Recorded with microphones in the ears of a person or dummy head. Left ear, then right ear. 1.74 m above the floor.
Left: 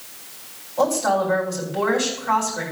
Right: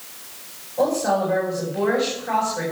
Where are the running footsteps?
I don't hear running footsteps.